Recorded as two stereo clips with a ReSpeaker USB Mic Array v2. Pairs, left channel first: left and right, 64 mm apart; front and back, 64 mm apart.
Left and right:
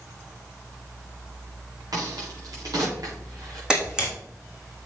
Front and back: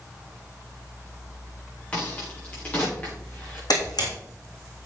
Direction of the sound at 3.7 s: 10° right.